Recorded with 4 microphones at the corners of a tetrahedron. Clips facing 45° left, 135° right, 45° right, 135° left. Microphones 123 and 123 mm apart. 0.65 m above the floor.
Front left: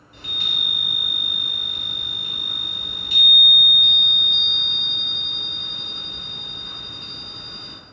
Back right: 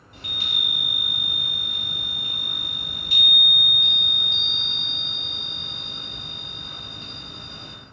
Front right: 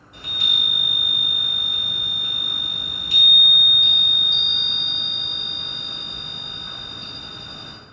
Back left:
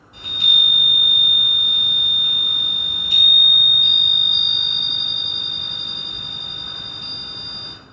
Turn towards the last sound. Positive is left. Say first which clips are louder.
# front left 1 dB, back left 2 dB
turn(degrees=-160)